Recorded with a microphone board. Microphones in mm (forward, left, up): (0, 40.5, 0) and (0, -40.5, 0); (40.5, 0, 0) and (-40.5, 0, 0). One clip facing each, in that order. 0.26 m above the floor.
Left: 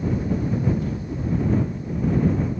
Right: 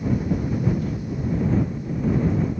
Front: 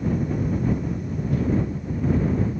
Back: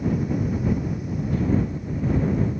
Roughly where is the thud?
I don't hear a thud.